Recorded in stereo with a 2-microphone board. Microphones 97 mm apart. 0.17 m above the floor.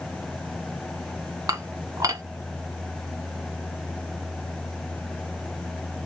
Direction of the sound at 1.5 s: 35° right (ahead or behind).